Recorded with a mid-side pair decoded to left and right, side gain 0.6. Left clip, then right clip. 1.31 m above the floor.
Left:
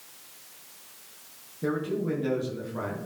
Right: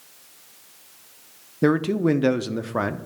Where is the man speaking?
65° right, 0.5 m.